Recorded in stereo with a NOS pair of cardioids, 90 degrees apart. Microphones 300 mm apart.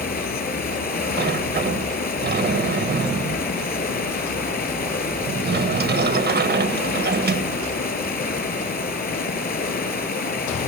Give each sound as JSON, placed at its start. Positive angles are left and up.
{"t": 0.0, "sound": "running water", "azimuth_deg": 30, "distance_m": 6.0}
{"t": 1.2, "sound": "a sliding door", "azimuth_deg": -30, "distance_m": 1.3}